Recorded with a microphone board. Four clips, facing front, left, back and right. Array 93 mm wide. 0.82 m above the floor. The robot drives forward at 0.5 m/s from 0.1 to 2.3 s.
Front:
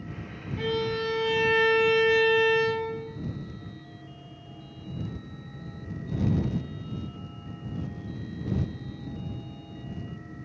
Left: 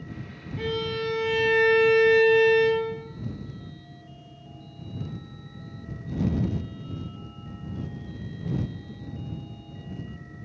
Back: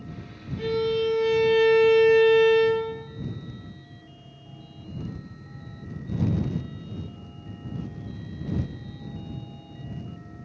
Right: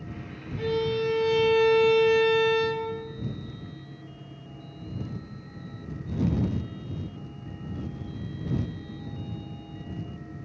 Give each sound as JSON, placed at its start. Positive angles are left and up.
{"t": 0.6, "sound": "a violin", "azimuth_deg": 40, "distance_m": 1.0}